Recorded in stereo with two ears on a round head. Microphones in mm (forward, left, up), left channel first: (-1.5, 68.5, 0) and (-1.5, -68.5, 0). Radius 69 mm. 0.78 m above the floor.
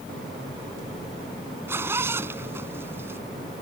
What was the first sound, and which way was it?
A zipper, 15° right (ahead or behind).